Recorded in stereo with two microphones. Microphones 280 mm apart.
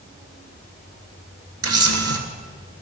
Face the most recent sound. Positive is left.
turn(degrees=-60)  # may be behind; listen again after turning